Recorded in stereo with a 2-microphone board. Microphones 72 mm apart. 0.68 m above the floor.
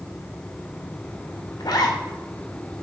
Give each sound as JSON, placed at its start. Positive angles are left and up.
{"t": 1.6, "sound": "a zipper", "side_deg": 65, "distance_m": 1.0}